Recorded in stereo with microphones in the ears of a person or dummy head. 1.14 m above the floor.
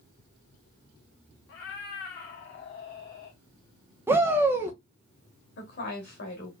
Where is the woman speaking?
60° left (ahead or behind), 2 m.